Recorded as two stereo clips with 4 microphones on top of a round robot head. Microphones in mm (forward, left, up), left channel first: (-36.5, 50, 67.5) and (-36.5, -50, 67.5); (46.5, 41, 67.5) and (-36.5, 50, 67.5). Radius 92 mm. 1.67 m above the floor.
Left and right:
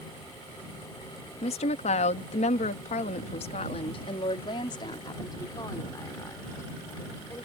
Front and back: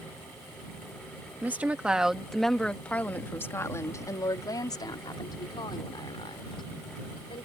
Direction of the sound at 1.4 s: 105° left.